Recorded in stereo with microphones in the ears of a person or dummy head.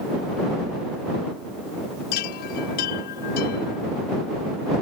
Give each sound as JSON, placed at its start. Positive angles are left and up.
{"t": 2.1, "sound": "a chime", "side_deg": 55}